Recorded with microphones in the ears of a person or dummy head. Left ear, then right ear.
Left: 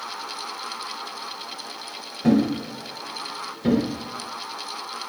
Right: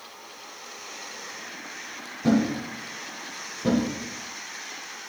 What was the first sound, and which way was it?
A thud, 10° left (ahead or behind).